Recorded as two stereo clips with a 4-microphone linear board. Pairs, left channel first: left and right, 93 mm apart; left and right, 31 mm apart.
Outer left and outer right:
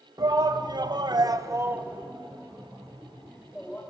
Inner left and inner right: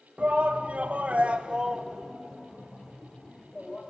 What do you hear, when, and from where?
0.2 s a shout: 45° right (ahead or behind), 1.5 m; by 3.8 s 15° left (ahead or behind), 2.5 m